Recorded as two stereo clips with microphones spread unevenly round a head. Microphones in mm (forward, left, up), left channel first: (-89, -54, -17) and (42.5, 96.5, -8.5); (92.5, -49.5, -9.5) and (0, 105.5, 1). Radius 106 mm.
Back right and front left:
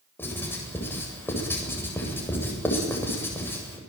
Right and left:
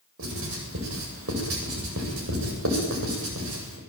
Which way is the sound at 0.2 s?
150° left.